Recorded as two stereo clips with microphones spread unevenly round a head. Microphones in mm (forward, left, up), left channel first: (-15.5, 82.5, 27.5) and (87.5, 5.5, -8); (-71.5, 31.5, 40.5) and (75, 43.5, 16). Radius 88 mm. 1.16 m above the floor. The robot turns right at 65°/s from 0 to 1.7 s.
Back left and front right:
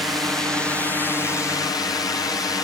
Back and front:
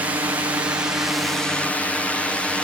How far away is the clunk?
No clunk in this recording.